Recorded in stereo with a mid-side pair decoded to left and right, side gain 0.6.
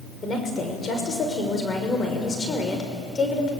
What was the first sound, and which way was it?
A woman speaking, 30° left.